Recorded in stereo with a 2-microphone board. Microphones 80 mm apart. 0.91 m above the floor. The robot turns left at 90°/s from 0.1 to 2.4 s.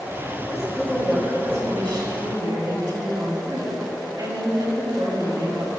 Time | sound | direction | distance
0.5 | a woman speaking | 50° left | 4.5 m